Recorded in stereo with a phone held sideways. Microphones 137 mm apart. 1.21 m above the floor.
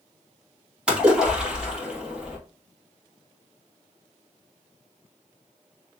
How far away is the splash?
About 2.5 m.